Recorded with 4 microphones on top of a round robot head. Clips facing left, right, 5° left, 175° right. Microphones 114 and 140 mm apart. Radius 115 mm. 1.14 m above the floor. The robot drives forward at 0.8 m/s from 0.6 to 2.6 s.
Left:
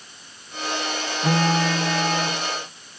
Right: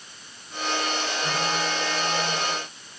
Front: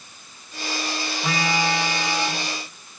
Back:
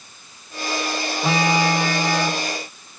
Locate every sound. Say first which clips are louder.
1.2 s a phone buzzing: left 9 dB, back 5 dB; 120° left, 0.9 m; by 3.0 s 155° left, 1.8 m